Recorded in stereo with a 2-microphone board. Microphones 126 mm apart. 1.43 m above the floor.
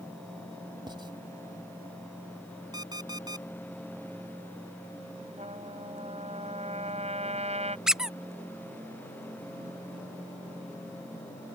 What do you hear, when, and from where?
0.9 s writing: 40° right (ahead or behind)
2.7 s an alarm clock: 35° right (ahead or behind)
5.4 s a trumpet: 60° right (ahead or behind)
7.9 s a squeak: 5° right (ahead or behind)